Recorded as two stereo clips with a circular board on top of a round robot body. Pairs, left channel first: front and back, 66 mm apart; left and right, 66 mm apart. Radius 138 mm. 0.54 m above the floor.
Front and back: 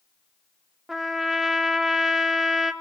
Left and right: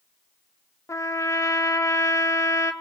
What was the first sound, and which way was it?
A trumpet, 95° left.